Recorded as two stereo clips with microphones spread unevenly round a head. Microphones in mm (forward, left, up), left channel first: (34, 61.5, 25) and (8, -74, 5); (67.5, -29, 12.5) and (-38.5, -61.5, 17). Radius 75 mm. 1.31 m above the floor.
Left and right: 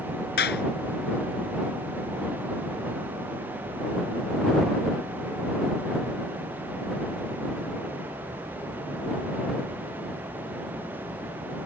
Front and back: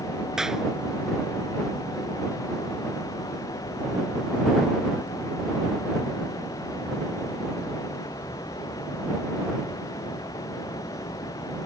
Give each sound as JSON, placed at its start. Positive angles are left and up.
{"t": 0.4, "sound": "a clap", "azimuth_deg": 110}